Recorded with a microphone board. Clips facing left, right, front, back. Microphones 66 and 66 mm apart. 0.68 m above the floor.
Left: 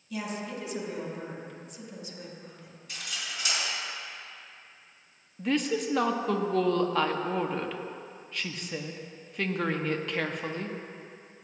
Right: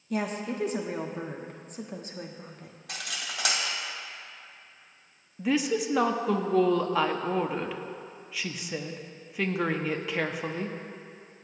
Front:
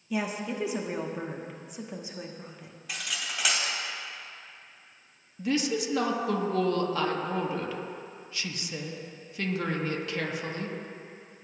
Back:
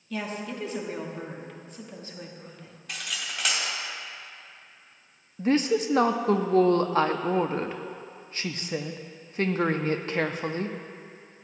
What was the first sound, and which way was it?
A woman speaking, 70° right.